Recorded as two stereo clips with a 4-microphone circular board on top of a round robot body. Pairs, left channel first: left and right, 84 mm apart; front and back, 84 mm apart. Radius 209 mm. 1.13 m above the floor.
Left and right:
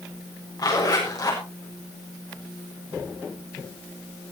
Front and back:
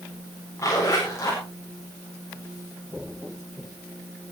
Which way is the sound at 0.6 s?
55° left.